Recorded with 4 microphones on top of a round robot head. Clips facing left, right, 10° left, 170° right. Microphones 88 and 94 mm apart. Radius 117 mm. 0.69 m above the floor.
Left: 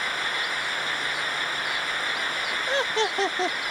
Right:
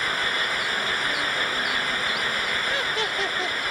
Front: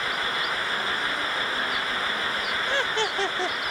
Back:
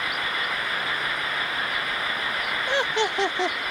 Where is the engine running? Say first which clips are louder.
Right 3 dB, even; 55° right.